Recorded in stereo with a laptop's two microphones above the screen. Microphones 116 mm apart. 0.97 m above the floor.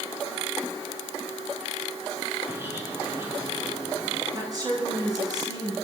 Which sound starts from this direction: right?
A woman speaking, at 4.3 s.